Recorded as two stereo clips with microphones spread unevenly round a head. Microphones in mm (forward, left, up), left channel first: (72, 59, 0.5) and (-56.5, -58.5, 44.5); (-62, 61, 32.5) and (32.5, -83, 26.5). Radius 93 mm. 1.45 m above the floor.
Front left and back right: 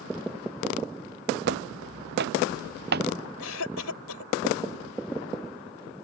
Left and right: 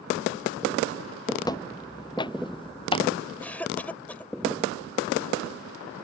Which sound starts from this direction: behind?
Footsteps, at 1.4 s.